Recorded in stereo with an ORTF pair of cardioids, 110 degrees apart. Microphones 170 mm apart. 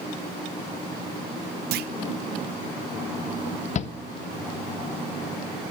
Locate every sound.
1.7 s a clunk: 70° right, 0.7 m
3.8 s a shout: 40° left, 1.5 m